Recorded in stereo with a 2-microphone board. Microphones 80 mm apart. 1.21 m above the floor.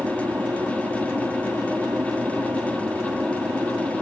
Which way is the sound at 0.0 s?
25° right (ahead or behind).